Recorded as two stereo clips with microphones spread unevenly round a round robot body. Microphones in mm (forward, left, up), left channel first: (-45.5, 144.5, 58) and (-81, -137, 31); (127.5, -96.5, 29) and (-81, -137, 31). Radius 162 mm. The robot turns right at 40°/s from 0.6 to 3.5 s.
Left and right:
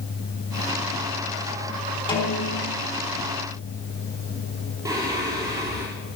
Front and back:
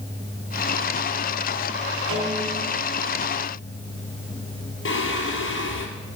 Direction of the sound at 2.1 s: 155° left.